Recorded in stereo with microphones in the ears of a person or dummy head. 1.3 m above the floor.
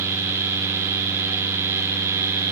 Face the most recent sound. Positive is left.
No sound to turn to.